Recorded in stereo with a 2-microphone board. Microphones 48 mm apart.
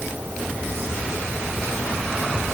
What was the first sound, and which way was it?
Only background noise.